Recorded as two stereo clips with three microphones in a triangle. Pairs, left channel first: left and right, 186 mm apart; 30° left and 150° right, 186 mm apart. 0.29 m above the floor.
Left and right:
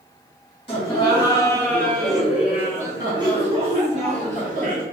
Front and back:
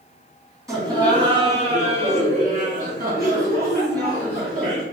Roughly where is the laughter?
Behind left.